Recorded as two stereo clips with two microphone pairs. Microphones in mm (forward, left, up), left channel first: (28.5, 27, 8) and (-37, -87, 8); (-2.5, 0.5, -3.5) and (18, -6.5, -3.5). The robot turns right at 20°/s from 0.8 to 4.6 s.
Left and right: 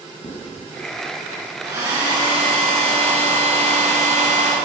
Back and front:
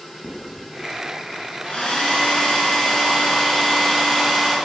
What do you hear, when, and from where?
0.2 s writing: 85° left, 2.5 m
1.6 s a hair dryer: 175° left, 4 m; by 4.5 s 125° right, 4 m